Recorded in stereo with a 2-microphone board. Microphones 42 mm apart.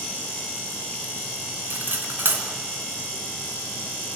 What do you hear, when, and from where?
1.7 s cutlery clinking: 60° right (ahead or behind), 3.5 m